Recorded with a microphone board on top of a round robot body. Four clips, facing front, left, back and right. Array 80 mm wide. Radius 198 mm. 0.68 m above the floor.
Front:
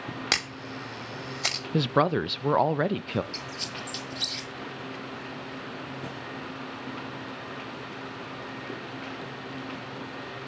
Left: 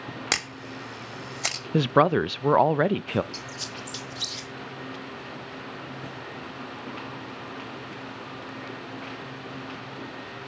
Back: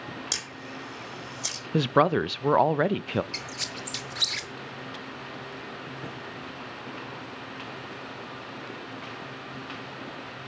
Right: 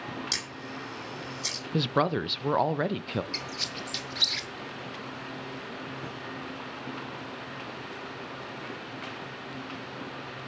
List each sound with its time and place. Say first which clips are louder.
0.3 s a camera shutter: left 5 dB, front 5 dB; 60° left, 3 m
1.7 s a woman speaking: left 6 dB, back 2 dB; 105° left, 0.7 m
3.3 s a squeak: even, even; 150° right, 0.6 m